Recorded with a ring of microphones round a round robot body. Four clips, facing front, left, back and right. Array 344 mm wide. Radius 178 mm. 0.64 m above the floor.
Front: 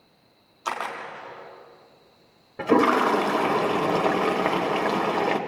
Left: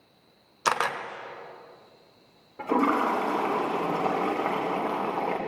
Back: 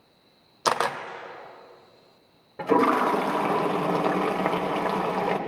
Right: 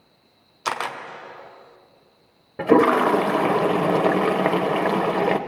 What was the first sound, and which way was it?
A camera shutter, 165° left.